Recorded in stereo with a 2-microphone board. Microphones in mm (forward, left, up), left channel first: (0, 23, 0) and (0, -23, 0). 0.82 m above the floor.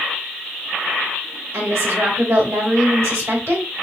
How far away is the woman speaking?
About 2.5 m.